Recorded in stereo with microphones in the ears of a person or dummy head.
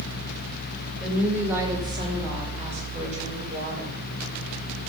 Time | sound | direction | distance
1.0 | a woman speaking | 5° right (ahead or behind) | 3 m